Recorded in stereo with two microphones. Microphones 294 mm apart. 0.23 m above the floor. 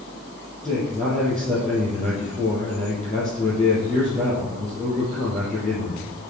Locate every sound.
0.6 s a man speaking: centre (ahead or behind), 5.5 m